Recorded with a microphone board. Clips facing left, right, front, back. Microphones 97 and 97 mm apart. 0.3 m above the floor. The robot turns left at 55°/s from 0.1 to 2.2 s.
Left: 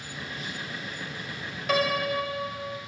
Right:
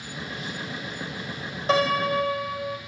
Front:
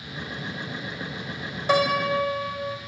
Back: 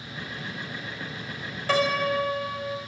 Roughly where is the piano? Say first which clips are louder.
Right 4 dB, front 2 dB; ahead right.